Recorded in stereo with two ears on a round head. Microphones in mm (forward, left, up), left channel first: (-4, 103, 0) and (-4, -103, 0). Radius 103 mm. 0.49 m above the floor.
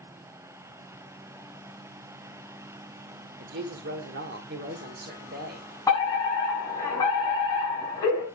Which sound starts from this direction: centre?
A fire alarm, at 5.9 s.